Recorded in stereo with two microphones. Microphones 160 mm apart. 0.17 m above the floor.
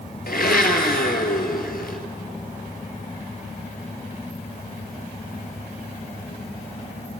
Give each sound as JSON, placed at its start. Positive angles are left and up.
{"t": 0.3, "sound": "a blender", "side_deg": 70, "distance_m": 1.2}